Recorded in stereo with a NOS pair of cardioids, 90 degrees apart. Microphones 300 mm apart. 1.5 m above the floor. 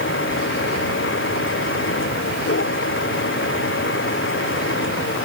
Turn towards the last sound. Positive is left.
turn(degrees=40)